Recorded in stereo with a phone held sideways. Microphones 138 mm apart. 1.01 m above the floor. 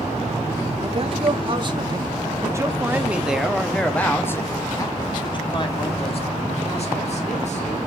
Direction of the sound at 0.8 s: 45° right (ahead or behind).